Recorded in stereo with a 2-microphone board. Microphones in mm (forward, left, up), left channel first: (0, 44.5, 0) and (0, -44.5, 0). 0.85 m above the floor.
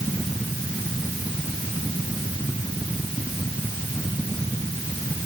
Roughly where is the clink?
No clink in this recording.